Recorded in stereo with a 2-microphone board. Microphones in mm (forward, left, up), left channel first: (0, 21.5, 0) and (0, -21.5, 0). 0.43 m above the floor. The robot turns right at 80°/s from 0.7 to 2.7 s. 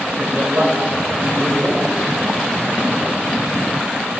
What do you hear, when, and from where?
0.2 s a man speaking: 100° right, 1.4 m; by 1.9 s straight ahead, 1.4 m